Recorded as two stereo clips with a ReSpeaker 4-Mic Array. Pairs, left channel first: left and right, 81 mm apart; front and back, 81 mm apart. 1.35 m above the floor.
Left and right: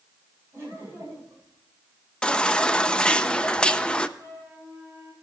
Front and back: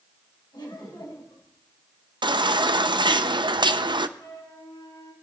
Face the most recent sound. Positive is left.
turn(degrees=-20)